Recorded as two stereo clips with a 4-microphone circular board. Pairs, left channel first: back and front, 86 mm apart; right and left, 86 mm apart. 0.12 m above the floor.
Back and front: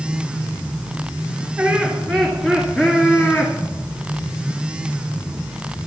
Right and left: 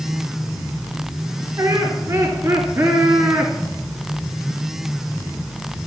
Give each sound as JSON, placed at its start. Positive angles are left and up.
{"t": 1.6, "sound": "laughter", "azimuth_deg": 70, "distance_m": 2.0}